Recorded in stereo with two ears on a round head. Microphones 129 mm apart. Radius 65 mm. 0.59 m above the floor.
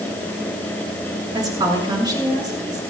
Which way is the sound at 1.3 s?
30° right (ahead or behind).